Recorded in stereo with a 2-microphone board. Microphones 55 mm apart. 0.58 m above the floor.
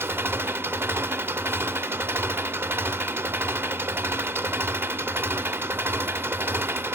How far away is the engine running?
About 0.7 m.